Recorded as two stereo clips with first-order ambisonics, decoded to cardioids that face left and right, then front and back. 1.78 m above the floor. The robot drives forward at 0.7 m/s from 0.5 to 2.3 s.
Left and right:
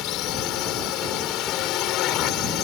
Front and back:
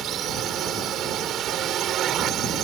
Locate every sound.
0.0 s a drone: 125° left